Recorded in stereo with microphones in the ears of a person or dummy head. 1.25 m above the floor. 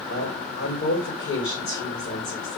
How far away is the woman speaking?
About 4 m.